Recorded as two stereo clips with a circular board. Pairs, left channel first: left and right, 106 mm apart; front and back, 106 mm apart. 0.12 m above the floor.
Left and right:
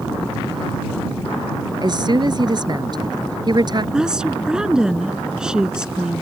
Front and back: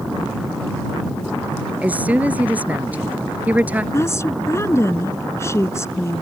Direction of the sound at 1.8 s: 110° right.